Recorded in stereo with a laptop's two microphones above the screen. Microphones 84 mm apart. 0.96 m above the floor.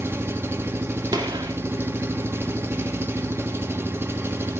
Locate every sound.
0.0 s an engine running: 30° right (ahead or behind), 1.4 m
1.1 s a gunshot: 60° right (ahead or behind), 2.5 m